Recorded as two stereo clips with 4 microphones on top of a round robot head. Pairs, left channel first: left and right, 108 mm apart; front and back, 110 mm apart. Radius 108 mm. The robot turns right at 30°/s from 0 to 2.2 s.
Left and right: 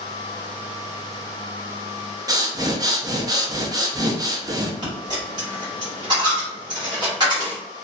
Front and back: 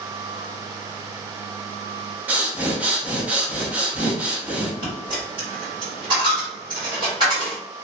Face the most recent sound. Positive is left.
turn(degrees=-120)